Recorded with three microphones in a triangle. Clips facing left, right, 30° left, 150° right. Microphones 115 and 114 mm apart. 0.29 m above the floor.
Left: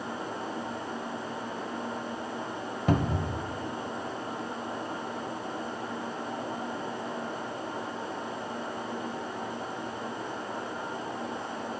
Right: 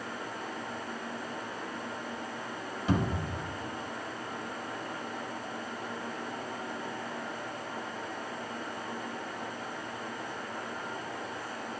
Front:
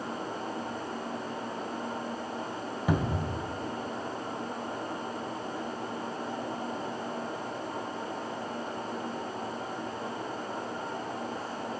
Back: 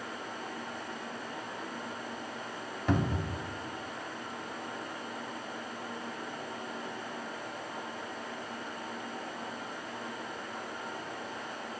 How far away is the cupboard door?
About 1.3 m.